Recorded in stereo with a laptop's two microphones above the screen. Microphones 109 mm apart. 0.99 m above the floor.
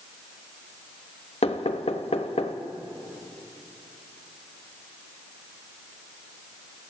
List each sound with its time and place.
1.4 s knocking: 65° left (ahead or behind), 0.6 m